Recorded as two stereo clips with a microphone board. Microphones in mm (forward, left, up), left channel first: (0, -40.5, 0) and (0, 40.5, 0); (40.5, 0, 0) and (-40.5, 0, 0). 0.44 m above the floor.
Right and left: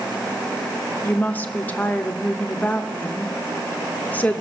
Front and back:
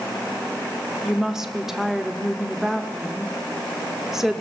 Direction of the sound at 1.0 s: 105° right.